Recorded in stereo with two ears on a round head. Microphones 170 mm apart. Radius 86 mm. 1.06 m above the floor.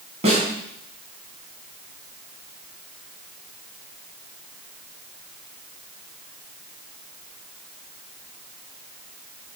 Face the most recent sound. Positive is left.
turn(degrees=-35)  # may be behind; listen again after turning